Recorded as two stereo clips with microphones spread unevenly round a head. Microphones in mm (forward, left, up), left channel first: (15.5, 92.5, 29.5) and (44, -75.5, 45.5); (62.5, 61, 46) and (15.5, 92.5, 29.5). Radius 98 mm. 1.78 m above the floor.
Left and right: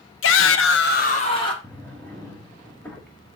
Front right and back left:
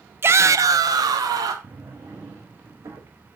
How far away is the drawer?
About 1.2 m.